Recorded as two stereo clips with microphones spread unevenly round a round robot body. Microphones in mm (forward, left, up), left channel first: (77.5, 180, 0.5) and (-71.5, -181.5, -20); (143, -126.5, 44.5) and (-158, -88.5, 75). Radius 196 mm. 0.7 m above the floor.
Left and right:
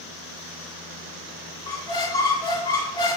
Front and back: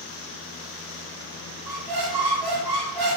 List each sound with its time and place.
1.7 s a squeak: 145° left, 1.3 m